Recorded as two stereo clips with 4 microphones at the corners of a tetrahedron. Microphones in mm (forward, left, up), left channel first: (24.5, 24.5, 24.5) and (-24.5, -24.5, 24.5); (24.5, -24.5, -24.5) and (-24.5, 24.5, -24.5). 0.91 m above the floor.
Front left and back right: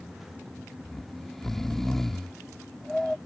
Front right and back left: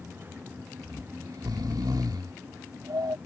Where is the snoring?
130° left.